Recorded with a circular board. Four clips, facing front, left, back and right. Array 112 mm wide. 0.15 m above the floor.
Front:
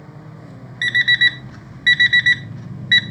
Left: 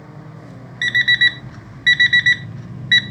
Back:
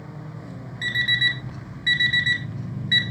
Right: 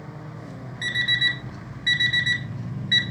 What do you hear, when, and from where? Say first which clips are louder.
0.8 s an alarm clock: left 9 dB, front 7 dB; 50° left, 1.3 m